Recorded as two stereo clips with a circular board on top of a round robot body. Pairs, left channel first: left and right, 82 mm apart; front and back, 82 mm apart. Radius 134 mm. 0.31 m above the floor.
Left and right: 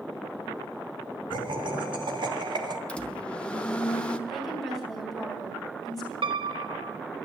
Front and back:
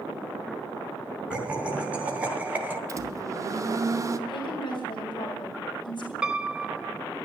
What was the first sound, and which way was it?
Laughter, 105° right.